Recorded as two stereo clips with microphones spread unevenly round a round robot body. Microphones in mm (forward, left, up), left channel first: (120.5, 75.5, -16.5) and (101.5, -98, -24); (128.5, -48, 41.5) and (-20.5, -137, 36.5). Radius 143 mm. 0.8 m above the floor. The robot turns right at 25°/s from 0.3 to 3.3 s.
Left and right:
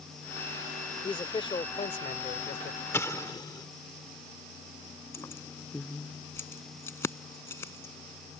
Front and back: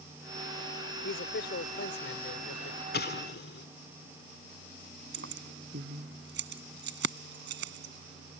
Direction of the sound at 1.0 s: 15° left.